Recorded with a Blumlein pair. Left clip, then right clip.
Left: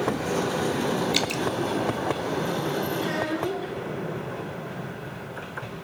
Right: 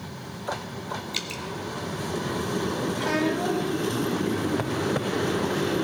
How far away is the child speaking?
About 4.5 m.